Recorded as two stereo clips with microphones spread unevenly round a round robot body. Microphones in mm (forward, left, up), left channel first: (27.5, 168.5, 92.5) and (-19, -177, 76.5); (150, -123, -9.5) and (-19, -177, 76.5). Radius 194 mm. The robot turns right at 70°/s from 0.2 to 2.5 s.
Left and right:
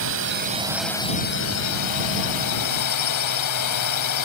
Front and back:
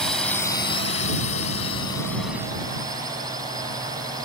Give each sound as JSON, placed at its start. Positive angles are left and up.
{"t": 0.0, "sound": "a drone", "azimuth_deg": -55}